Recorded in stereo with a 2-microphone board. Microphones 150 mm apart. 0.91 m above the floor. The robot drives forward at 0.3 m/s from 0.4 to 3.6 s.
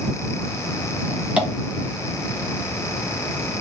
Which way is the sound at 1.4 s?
5° right (ahead or behind).